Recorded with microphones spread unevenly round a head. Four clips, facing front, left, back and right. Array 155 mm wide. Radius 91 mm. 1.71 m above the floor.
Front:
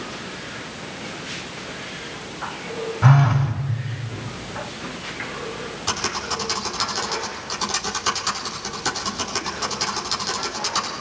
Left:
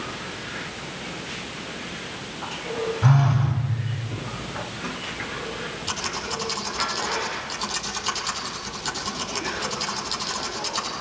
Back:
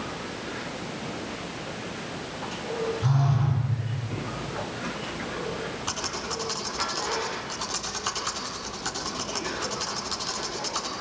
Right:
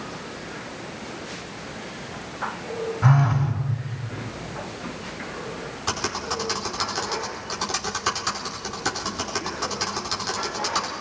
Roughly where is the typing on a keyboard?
Ahead right.